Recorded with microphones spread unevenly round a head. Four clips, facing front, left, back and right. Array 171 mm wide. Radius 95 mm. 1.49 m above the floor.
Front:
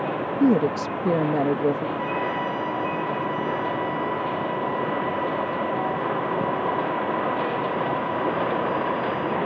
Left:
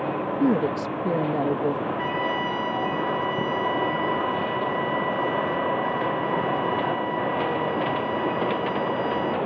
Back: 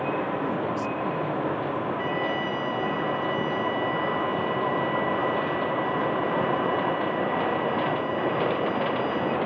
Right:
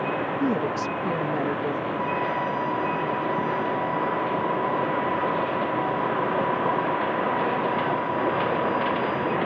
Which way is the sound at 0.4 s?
15° left.